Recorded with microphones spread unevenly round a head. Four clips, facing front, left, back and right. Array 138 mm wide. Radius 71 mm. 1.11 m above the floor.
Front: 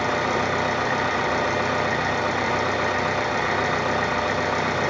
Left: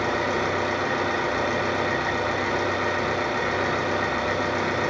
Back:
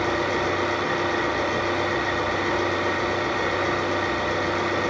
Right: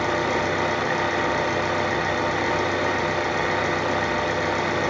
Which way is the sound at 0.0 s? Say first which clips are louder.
Right 1 dB, front 1 dB; 40° right.